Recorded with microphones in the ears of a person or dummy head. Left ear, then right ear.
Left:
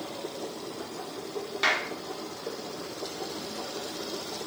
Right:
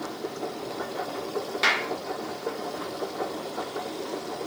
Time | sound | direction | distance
0.0 | a machine running | 70° right (ahead or behind) | 2 m
1.6 | a clap | centre (ahead or behind) | 3.5 m